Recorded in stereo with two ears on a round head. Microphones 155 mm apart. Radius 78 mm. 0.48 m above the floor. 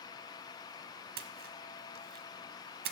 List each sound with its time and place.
1.2 s a splash: 55° right (ahead or behind), 0.7 m